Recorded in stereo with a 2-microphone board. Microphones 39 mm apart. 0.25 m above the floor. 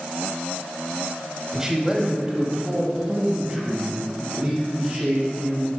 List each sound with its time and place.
1.5 s a man speaking: 10° right (ahead or behind), 1.0 m; by 5.7 s 20° right (ahead or behind), 3 m